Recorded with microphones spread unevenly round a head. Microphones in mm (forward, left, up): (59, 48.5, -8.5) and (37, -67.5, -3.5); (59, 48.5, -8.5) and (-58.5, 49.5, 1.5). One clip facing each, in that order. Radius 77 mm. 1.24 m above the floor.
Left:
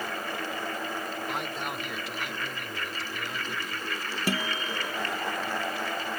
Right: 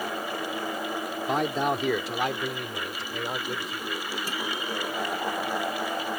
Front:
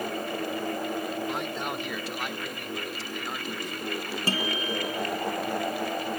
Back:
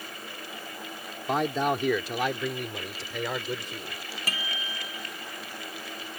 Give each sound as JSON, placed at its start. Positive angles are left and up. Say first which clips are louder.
{"t": 1.3, "sound": "a man speaking", "louder": "right 8 dB, back 6 dB", "azimuth_deg": -135}
{"t": 4.3, "sound": "a guitar", "louder": "left 4 dB, front 9 dB", "azimuth_deg": 60}